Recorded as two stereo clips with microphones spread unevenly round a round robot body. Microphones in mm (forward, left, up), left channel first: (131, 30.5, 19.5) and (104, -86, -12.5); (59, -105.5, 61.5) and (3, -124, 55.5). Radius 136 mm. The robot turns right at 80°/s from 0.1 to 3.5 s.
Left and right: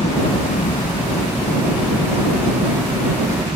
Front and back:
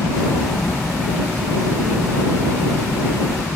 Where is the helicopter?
30° left; by 3.6 s 55° right.